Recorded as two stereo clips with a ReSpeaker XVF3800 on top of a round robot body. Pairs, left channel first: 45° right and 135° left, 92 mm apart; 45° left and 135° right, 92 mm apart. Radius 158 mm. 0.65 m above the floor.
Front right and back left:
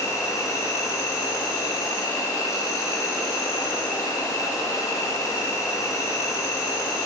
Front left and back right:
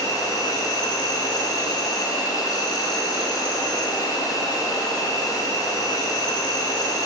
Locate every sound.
0.0 s an insect: 5° left, 1.2 m